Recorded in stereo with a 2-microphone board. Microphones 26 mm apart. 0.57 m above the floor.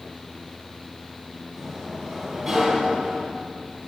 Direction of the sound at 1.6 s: 5° right (ahead or behind).